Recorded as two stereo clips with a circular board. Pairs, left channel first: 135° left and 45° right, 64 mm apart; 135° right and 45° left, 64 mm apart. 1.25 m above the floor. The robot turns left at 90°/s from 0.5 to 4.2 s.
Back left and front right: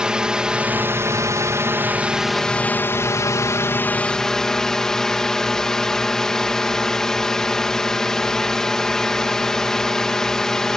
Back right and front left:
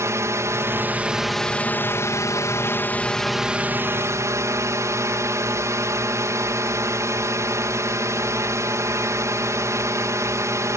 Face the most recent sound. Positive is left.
turn(degrees=55)